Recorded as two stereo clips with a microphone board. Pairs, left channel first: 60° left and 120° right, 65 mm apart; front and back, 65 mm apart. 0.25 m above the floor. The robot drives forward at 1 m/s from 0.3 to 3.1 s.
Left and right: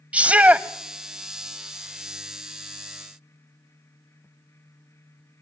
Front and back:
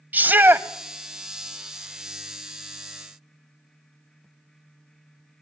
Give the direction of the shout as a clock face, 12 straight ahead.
5 o'clock.